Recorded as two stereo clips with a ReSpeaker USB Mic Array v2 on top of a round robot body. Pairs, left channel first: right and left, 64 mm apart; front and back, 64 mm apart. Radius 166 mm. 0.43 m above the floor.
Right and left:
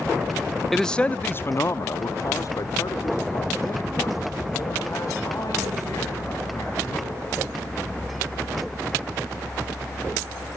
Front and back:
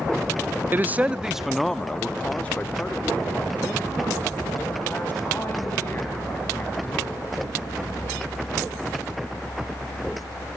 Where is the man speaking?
175° right, 0.8 m; by 7.2 s 55° right, 4.5 m.